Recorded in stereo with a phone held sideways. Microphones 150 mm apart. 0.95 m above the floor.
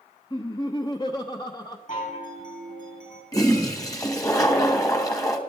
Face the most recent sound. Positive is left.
turn(degrees=20)  # may be behind; listen again after turning